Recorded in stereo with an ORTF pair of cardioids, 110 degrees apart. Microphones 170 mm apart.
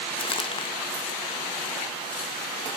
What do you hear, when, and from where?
0.2 s crumpling: 35° left, 1.5 m